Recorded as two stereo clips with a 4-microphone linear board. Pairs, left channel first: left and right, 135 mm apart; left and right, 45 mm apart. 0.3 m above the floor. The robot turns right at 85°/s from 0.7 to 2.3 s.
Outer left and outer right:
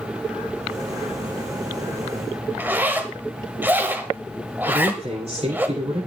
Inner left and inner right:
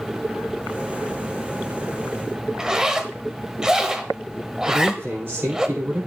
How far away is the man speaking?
About 8.5 m.